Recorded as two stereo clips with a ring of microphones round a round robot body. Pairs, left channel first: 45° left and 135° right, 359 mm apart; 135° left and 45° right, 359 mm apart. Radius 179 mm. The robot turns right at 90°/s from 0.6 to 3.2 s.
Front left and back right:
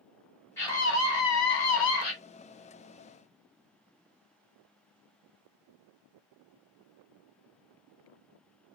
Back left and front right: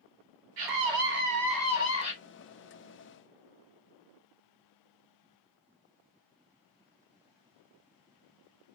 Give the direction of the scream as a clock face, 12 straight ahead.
1 o'clock.